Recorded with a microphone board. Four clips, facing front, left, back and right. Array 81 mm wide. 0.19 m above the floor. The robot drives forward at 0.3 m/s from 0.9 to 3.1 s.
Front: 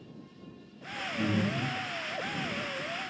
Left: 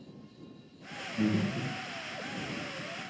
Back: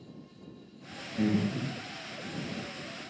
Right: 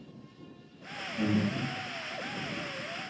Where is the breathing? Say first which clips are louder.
Right 1 dB, back 2 dB; 145° left, 1.7 m; by 1.8 s 150° left, 1.8 m.